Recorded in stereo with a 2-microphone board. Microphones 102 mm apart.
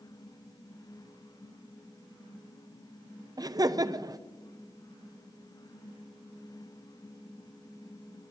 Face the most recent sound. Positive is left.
turn(degrees=-35)  # may be behind; listen again after turning